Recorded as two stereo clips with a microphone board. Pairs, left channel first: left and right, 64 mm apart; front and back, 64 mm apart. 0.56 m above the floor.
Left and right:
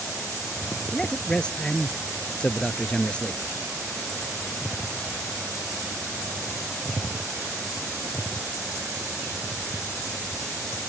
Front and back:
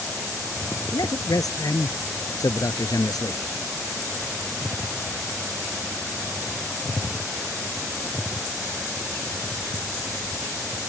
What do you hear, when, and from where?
0.9 s a man speaking: 15° left